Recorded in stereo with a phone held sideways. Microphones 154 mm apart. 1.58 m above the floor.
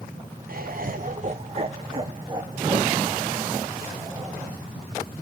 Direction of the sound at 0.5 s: 65° right (ahead or behind).